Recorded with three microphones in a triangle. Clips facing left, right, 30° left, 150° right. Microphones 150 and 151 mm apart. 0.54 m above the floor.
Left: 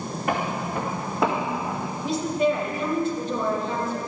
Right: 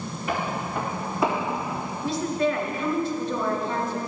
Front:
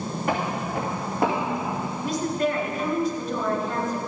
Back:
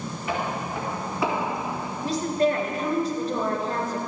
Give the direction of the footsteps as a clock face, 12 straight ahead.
10 o'clock.